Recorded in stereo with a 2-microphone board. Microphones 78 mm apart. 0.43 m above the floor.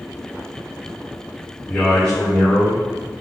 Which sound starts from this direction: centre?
A man speaking, at 1.7 s.